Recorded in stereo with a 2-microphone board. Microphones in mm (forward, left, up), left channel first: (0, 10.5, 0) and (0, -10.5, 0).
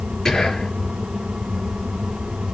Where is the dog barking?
No dog barking in this recording.